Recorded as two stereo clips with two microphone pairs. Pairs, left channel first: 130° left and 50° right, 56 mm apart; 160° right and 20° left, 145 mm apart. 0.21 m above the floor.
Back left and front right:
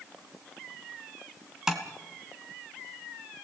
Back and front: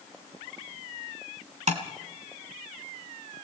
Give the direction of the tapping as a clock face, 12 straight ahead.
11 o'clock.